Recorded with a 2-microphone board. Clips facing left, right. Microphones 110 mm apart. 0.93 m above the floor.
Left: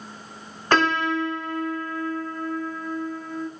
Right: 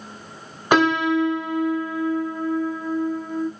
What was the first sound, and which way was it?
A piano, 15° right (ahead or behind).